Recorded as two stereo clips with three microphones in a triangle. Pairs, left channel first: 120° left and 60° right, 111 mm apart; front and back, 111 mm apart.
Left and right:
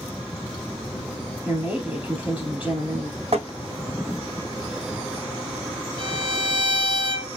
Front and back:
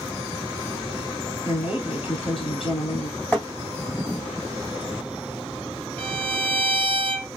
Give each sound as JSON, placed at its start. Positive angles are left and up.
{"t": 1.4, "sound": "a woman speaking", "azimuth_deg": 10, "distance_m": 2.5}
{"t": 3.3, "sound": "tapping", "azimuth_deg": -80, "distance_m": 2.5}
{"t": 6.0, "sound": "a violin", "azimuth_deg": -75, "distance_m": 2.5}